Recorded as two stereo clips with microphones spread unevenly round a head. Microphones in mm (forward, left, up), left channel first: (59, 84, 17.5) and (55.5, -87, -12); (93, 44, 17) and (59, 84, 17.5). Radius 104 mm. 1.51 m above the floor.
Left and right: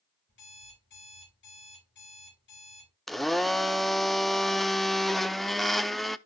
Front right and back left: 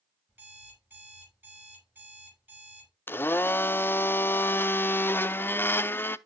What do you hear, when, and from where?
0.3 s an alarm clock: 75° left, 6 m
3.1 s a blender: straight ahead, 0.6 m